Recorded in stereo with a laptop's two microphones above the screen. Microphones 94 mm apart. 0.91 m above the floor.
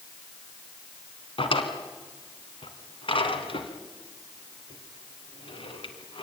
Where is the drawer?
70° left (ahead or behind), 2.5 m.